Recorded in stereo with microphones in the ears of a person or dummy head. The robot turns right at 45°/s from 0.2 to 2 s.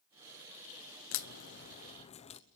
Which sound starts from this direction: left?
A crack, at 1.1 s.